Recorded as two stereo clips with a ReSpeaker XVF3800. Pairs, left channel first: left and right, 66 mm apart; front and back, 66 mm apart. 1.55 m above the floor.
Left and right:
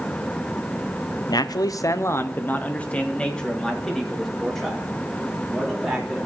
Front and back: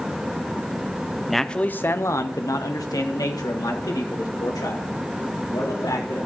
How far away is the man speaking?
About 0.7 m.